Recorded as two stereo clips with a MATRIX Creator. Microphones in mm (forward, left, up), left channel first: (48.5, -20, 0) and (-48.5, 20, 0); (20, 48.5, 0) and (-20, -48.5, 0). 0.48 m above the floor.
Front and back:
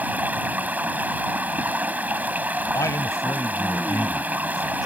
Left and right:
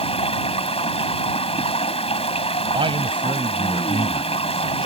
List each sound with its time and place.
0.0 s running water: 85° left
2.7 s a man speaking: 80° right